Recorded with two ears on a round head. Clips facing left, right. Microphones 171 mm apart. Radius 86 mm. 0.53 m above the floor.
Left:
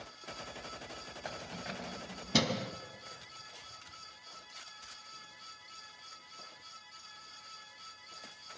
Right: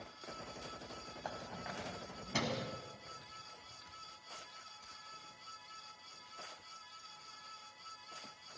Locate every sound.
1.2 s keys jangling: 25° left (ahead or behind), 2.0 m; by 2.7 s 55° left (ahead or behind), 3 m